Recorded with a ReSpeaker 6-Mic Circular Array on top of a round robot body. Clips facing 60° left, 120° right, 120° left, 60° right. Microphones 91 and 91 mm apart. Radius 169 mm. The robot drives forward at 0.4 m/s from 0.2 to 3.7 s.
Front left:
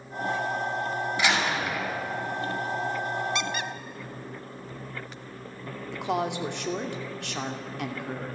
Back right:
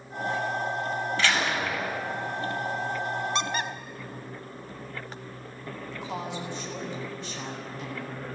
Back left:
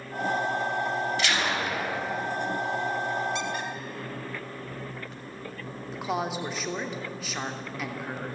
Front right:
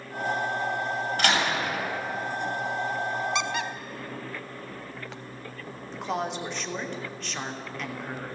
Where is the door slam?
15° right, 7 m.